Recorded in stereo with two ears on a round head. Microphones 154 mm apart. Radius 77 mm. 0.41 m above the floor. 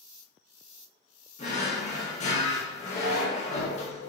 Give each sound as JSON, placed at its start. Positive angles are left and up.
{"t": 1.4, "sound": "a drawer", "side_deg": 40, "distance_m": 0.6}